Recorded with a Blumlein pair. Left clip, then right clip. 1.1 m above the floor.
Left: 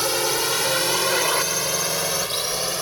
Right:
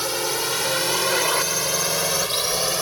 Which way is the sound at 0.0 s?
10° left.